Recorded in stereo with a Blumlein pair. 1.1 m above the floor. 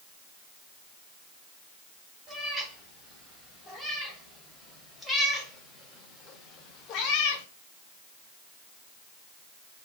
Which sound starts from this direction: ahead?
A cat meowing, at 2.3 s.